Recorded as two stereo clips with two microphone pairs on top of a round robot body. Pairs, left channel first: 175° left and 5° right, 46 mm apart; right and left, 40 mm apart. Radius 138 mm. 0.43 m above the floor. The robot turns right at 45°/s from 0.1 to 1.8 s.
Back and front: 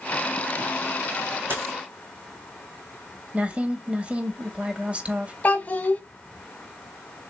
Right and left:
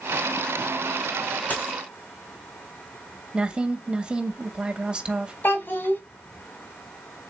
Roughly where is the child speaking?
Behind right.